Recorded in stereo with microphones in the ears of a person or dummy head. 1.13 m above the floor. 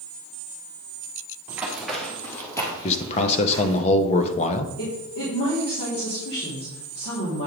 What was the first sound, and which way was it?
Running footsteps, 10° right (ahead or behind).